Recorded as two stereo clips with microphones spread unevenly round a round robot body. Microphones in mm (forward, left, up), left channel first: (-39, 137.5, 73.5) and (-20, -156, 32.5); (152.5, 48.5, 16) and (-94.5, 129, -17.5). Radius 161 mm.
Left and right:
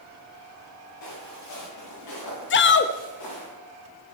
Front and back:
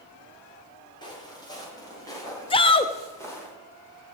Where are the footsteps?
55° left, 8.5 m; by 3.5 s 60° left, 10 m.